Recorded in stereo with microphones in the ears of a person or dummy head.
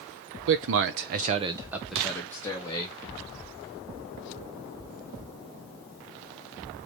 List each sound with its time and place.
0.5 s a man speaking: 65° right (ahead or behind), 0.8 m; by 3.0 s 20° left (ahead or behind), 1.3 m